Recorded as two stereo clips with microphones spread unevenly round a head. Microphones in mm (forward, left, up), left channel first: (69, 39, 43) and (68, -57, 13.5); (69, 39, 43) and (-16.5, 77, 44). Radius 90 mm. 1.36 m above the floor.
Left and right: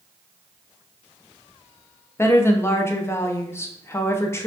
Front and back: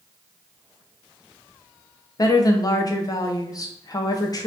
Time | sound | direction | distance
2.2 | a woman speaking | 25° left | 0.8 m